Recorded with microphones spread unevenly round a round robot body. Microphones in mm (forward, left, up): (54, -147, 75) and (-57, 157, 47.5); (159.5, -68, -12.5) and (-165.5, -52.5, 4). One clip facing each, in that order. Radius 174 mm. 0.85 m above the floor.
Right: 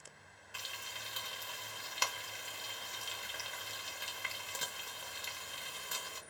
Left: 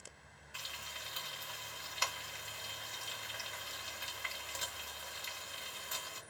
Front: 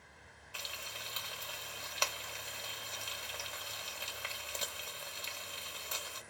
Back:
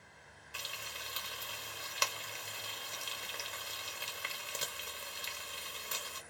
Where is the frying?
115° right, 0.8 m.